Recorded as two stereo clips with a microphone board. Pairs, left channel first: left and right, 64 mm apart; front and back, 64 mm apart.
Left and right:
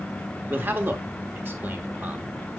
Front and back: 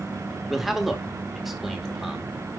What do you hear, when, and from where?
0.5 s a man speaking: 95° right, 1.1 m